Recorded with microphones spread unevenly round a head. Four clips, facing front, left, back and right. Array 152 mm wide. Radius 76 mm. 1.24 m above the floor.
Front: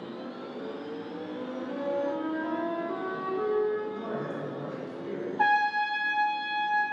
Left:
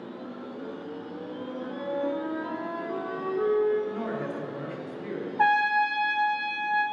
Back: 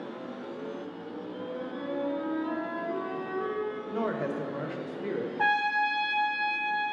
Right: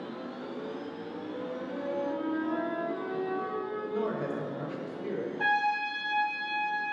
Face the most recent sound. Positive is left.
turn(degrees=60)